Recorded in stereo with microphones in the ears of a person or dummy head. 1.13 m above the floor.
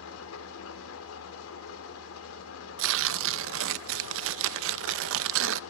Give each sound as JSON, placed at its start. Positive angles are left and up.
{"t": 0.0, "sound": "an engine running", "side_deg": 90, "distance_m": 2.5}
{"t": 2.8, "sound": "tearing paper", "side_deg": -75, "distance_m": 0.5}